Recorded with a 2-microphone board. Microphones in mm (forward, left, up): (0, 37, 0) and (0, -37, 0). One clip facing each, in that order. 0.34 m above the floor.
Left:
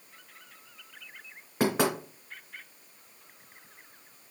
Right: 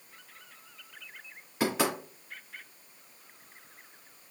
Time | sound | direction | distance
1.6 | knocking | 45° left (ahead or behind) | 3 m